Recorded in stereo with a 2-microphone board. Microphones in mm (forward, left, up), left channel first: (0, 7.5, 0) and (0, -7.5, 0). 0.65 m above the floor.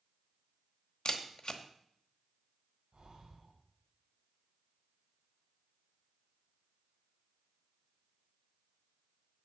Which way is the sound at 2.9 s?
60° right (ahead or behind).